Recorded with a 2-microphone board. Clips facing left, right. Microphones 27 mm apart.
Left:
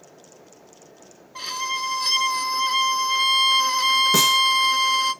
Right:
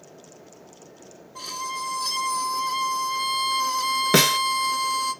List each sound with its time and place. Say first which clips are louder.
1.4 s a violin: left 4 dB; 40° left (ahead or behind), 0.6 m
4.1 s a snare drum: left 1 dB; 55° right (ahead or behind), 0.9 m